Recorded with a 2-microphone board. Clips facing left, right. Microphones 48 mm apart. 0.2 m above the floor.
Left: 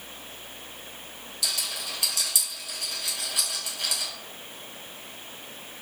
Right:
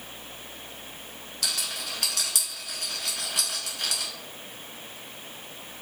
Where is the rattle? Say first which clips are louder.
Even; 55° right (ahead or behind), 0.9 m.